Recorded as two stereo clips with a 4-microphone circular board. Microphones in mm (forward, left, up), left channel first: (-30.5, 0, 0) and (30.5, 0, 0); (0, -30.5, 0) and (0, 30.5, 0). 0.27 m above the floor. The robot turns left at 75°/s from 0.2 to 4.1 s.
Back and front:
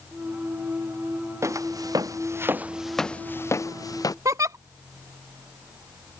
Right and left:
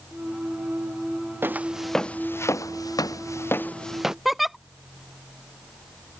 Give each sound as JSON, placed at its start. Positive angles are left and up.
{"t": 1.4, "sound": "footsteps", "azimuth_deg": 40}
{"t": 4.2, "sound": "a giggle", "azimuth_deg": 0}